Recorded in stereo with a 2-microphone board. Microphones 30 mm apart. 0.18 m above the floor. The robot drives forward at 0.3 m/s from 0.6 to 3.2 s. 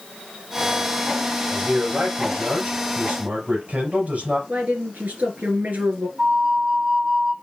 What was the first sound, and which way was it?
A man speaking, 65° right (ahead or behind).